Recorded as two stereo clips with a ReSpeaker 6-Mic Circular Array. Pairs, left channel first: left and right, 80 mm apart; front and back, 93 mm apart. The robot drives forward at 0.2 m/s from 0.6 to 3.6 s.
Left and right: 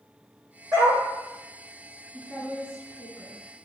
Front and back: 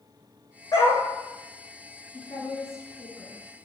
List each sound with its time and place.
0.7 s a dog barking: 50° right, 1.6 m; by 1.0 s 55° right, 1.6 m
2.1 s a woman speaking: 165° right, 2 m